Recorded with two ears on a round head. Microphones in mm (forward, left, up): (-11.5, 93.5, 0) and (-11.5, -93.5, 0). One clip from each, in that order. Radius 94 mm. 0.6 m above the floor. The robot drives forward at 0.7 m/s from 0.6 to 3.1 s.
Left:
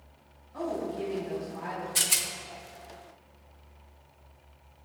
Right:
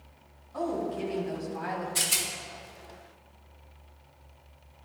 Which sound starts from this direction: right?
A woman speaking, at 0.5 s.